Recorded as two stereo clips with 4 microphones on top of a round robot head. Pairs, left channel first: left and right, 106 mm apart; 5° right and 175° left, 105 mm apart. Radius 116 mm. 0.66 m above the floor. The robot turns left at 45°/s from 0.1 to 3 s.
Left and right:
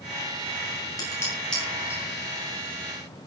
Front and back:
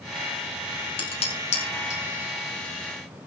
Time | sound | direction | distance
1.0 | dishes clattering | 30° left | 6.5 m